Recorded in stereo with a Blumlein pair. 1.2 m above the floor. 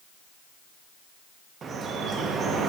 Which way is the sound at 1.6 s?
20° right.